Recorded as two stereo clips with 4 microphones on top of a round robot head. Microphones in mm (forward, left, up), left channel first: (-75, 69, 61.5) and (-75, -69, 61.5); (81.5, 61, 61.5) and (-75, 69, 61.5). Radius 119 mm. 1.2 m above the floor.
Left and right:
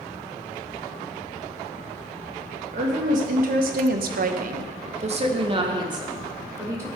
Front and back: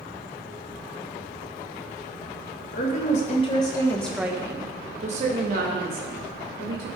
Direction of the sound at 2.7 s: 45° right.